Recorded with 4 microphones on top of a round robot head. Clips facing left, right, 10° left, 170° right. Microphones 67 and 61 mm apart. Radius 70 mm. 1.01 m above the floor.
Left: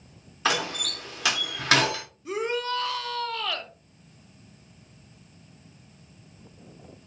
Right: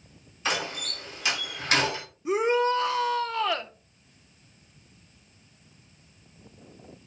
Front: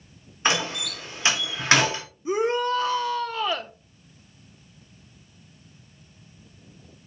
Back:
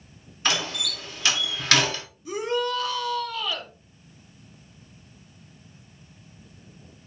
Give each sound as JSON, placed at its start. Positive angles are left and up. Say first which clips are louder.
{"t": 0.5, "sound": "a door slam", "louder": "left 3 dB, front 2 dB", "azimuth_deg": 75, "distance_m": 2.5}
{"t": 2.2, "sound": "a shout", "louder": "right 6 dB, front 3 dB", "azimuth_deg": -35, "distance_m": 0.7}